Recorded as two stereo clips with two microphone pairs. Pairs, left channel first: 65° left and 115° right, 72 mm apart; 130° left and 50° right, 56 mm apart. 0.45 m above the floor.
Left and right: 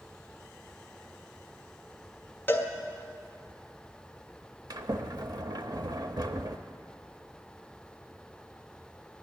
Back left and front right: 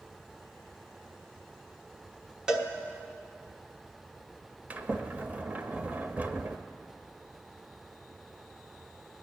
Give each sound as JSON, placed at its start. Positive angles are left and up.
{"t": 2.5, "sound": "a cowbell", "azimuth_deg": 15, "distance_m": 1.2}
{"t": 4.7, "sound": "a sliding door", "azimuth_deg": -110, "distance_m": 0.8}